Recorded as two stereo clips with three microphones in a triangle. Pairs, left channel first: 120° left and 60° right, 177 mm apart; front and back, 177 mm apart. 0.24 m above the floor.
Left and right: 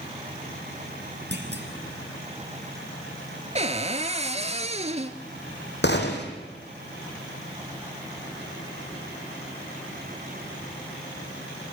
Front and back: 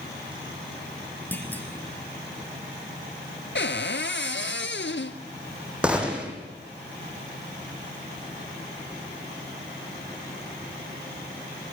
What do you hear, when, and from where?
1.3 s a clunk: 80° right, 3.5 m
3.5 s a cupboard door: 5° right, 1.3 m
5.8 s a gunshot: 95° left, 3.5 m